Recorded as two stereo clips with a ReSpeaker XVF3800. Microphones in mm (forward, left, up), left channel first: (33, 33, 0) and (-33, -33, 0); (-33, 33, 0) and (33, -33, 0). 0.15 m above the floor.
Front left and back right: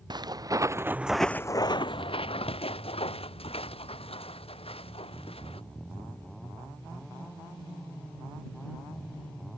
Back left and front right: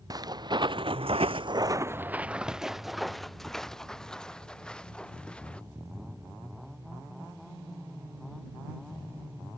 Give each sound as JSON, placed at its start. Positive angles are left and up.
{"t": 0.1, "sound": "footsteps", "azimuth_deg": -95}